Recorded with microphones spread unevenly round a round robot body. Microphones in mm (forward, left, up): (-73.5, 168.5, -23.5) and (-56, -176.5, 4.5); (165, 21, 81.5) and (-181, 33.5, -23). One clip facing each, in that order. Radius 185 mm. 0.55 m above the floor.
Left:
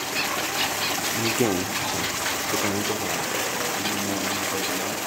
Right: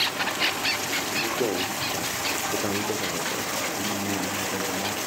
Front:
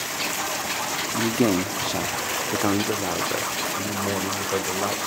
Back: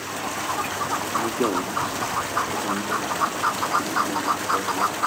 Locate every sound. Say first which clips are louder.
1.1 s a man speaking: left 4 dB, front 4 dB; 60° left, 1.1 m; by 5.1 s 10° right, 2.5 m